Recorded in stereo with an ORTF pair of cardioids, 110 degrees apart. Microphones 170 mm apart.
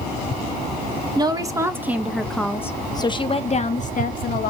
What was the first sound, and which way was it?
A woman speaking, 25° right.